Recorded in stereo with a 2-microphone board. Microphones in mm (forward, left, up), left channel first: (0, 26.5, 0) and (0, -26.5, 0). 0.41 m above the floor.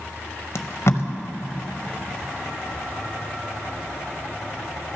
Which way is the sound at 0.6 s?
60° left (ahead or behind).